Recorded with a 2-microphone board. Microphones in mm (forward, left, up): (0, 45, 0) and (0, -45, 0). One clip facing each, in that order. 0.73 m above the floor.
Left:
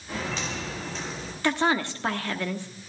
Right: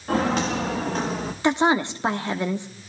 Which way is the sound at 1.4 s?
20° right (ahead or behind).